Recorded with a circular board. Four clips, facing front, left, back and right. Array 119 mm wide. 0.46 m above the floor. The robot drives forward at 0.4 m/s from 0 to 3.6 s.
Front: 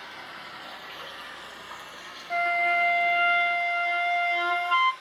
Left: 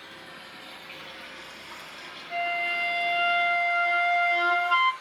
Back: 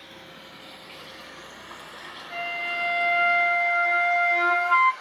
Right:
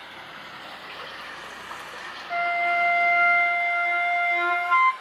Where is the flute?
35° right, 0.6 m; by 4.9 s 135° right, 0.5 m.